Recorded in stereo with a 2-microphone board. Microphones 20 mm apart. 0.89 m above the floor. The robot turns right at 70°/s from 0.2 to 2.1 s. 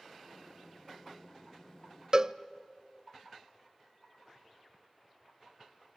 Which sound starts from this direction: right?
A cowbell, at 2.1 s.